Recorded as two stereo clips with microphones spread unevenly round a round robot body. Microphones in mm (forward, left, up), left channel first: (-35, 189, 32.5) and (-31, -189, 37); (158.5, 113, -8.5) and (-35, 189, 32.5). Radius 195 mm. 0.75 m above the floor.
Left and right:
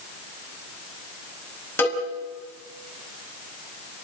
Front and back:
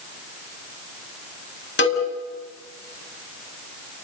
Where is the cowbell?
5° left, 5.5 m.